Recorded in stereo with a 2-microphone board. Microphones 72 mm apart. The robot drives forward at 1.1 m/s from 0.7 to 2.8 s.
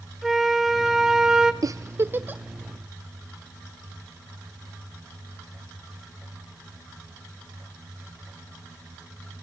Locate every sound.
0.2 s a flute: 5° right (ahead or behind), 1.3 m; by 1.5 s 10° right (ahead or behind), 0.6 m
1.6 s a giggle: 55° right (ahead or behind), 0.5 m; by 2.4 s 25° right (ahead or behind), 1.1 m